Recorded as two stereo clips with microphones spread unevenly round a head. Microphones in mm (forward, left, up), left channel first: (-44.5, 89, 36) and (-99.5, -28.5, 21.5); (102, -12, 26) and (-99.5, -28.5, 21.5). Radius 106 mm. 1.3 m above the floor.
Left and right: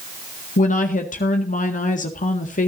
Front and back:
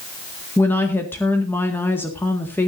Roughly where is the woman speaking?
Left.